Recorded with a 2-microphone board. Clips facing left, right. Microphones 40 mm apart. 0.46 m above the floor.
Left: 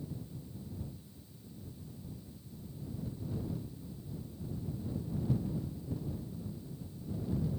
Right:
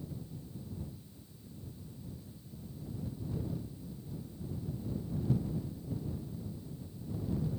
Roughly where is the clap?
No clap in this recording.